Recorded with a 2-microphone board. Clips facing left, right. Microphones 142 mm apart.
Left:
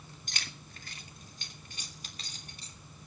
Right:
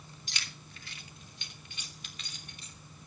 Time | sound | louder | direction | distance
0.3 | keys jangling | left 1 dB | 45° left (ahead or behind) | 2 m